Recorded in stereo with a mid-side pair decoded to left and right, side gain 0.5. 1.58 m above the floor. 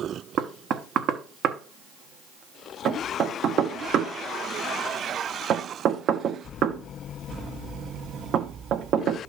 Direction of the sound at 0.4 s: 65° right.